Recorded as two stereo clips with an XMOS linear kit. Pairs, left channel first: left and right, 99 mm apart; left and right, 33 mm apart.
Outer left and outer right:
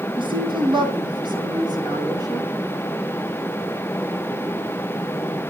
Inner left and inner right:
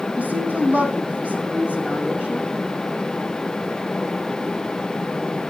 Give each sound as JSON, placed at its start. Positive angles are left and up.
{"t": 0.2, "sound": "a woman speaking", "side_deg": -55, "distance_m": 4.5}